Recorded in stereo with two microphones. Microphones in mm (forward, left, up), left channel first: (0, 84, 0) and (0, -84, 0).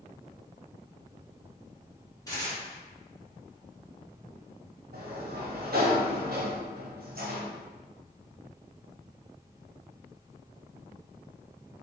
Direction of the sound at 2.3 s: 20° left (ahead or behind).